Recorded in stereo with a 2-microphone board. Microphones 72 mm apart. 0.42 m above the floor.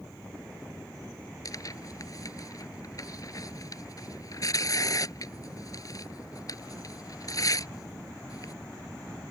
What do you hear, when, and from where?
1.4 s tearing paper: 50° left (ahead or behind)